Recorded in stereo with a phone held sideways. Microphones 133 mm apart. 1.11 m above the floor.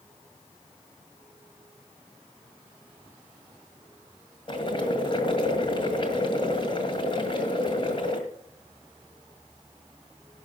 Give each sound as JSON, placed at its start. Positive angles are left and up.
{"t": 4.5, "sound": "boiling", "side_deg": 40, "distance_m": 1.7}